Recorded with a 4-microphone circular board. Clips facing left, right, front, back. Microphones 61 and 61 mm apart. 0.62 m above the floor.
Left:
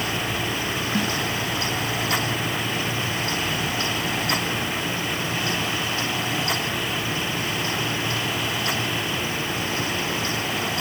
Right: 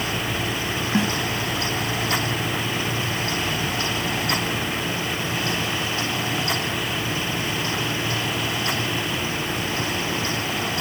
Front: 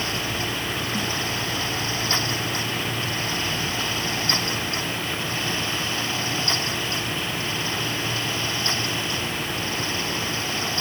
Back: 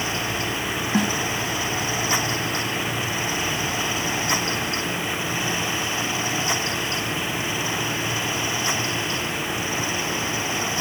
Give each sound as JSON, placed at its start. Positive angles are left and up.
{"t": 0.9, "sound": "a snare drum", "azimuth_deg": -160}